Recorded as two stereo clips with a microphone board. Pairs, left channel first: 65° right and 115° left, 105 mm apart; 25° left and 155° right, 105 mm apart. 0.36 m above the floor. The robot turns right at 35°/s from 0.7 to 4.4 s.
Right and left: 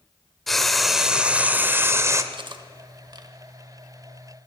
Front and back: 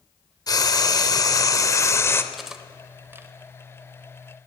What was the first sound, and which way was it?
Frying, 20° left.